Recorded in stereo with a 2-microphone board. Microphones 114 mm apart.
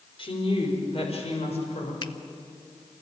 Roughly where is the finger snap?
Left.